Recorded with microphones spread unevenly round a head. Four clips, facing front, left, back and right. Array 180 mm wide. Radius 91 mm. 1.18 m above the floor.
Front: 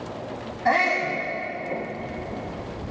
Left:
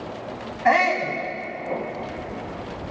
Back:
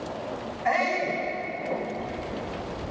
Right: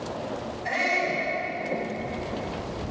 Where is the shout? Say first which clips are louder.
Left 8 dB, front 3 dB; 55° left, 8 m.